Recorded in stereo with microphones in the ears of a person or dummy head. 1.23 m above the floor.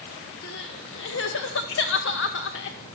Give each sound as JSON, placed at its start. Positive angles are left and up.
{"t": 0.4, "sound": "crying", "side_deg": 65, "distance_m": 1.5}